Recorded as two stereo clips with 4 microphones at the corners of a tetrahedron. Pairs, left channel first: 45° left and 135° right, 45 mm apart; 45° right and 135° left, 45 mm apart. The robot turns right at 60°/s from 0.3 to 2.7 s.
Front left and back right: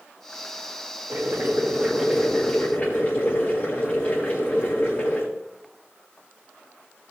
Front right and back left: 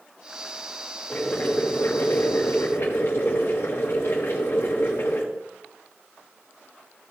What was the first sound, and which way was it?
Boiling, 115° right.